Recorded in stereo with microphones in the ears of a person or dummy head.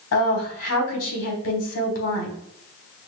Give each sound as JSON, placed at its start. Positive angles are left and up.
{"t": 0.1, "sound": "a woman speaking", "side_deg": 75, "distance_m": 1.5}